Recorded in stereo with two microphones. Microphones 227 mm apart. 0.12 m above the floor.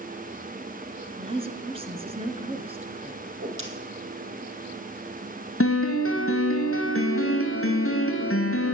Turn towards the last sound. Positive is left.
turn(degrees=75)  # may be behind; listen again after turning